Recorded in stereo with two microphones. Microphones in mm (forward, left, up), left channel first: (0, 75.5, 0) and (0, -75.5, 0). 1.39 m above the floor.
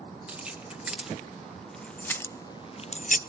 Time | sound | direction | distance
0.3 | keys jangling | 10° right (ahead or behind) | 1.9 m